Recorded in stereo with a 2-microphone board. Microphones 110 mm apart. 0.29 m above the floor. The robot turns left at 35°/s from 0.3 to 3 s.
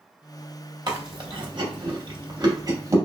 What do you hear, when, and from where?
0.9 s chewing: 40° right (ahead or behind), 0.7 m; by 3.0 s 30° right (ahead or behind), 0.7 m